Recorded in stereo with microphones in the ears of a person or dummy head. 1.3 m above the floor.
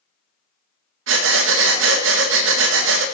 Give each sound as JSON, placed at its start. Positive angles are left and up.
{"t": 1.1, "sound": "breathing", "side_deg": -75, "distance_m": 1.6}